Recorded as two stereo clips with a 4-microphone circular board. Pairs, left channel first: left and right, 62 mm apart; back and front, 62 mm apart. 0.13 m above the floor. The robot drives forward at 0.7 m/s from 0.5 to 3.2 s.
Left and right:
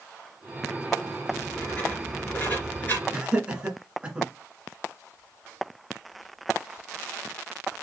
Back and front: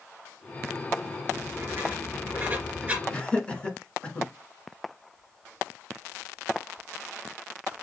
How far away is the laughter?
About 1.3 m.